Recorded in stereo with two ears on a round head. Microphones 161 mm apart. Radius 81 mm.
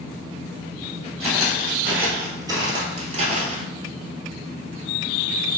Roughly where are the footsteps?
Centre.